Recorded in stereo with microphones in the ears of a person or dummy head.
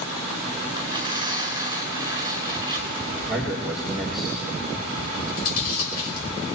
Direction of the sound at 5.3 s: 55° left (ahead or behind).